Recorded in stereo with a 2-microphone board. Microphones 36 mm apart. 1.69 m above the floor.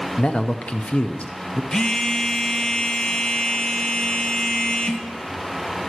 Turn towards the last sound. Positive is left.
turn(degrees=20)  # may be behind; listen again after turning